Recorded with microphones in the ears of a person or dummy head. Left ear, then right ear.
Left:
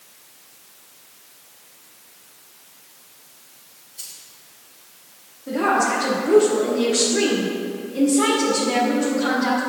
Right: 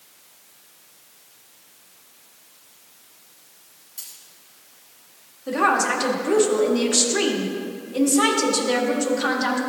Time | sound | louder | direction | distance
4.0 | a dropped coin | left 3 dB | 55° right (ahead or behind) | 2.5 m
5.5 | a woman speaking | even | 55° right (ahead or behind) | 1.5 m